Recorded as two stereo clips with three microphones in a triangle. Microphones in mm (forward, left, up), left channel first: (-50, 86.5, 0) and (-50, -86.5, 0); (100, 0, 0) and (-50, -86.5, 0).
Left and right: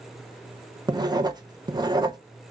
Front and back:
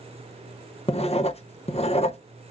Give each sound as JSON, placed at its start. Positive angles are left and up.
{"t": 0.9, "sound": "writing", "azimuth_deg": -25, "distance_m": 0.7}